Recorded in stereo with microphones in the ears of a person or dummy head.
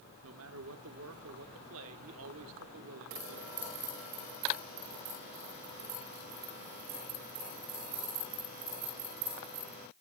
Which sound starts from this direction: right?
A man speaking, at 0.2 s.